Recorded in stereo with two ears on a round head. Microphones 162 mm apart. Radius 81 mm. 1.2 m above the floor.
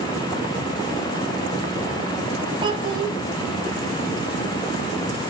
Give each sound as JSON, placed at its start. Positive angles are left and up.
{"t": 2.6, "sound": "a child speaking", "side_deg": -25, "distance_m": 0.7}